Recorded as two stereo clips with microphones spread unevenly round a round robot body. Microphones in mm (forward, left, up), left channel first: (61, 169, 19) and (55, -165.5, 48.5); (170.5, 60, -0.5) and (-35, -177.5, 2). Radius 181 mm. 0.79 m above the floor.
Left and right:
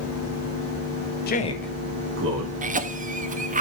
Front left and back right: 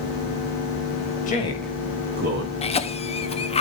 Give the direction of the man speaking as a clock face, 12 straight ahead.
9 o'clock.